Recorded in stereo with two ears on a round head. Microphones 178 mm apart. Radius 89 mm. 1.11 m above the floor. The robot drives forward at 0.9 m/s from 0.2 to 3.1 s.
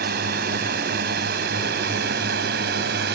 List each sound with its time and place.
0.0 s a drone: 50° right (ahead or behind); by 3.2 s 55° right (ahead or behind)